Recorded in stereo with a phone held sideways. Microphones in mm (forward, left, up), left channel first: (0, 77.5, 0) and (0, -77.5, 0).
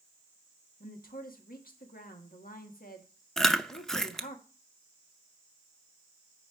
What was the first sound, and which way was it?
A woman speaking, 65° left (ahead or behind).